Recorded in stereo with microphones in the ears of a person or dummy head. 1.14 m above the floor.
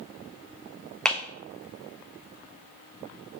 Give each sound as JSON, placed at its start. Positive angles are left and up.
{"t": 1.1, "sound": "a clap", "side_deg": 5, "distance_m": 0.7}